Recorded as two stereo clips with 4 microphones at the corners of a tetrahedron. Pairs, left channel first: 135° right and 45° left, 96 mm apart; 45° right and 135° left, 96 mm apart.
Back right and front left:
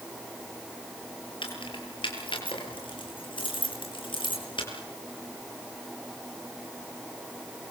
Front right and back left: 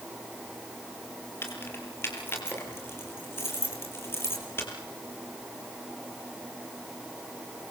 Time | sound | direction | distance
1.4 | keys jangling | 110° right | 8 m